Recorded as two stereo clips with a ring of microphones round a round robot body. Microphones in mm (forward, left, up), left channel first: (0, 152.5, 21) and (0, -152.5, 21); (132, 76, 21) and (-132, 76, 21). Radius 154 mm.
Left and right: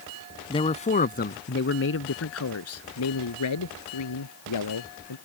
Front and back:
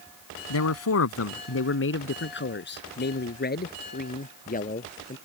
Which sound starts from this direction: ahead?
A man speaking, at 0.5 s.